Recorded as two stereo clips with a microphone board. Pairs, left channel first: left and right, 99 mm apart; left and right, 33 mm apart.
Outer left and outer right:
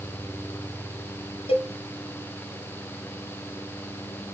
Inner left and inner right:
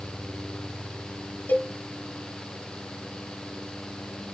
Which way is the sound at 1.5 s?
70° left (ahead or behind).